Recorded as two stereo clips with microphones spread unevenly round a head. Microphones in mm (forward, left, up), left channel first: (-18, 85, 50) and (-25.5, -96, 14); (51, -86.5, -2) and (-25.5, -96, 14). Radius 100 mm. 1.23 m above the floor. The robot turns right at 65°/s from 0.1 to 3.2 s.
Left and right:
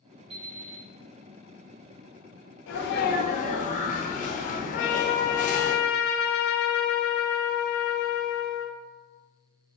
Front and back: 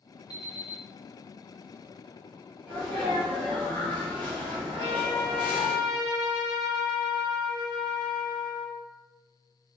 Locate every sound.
0.3 s an alarm clock: 25° right, 1.1 m; by 0.8 s 10° left, 1.1 m
2.7 s a sneeze: 105° left, 1.1 m; by 5.7 s 140° left, 1.1 m
4.7 s a trumpet: 50° left, 0.6 m